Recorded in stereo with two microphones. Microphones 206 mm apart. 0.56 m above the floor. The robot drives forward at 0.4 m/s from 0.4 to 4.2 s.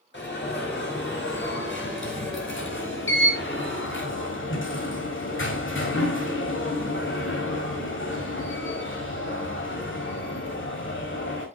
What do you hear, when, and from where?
0.1 s an alarm: 60° left (ahead or behind), 5 m; by 11.5 s 70° left (ahead or behind), 5 m